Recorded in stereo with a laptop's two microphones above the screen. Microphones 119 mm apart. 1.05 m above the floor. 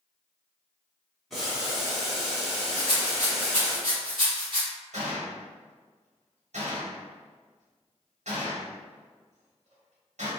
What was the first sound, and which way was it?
Boiling, centre (ahead or behind).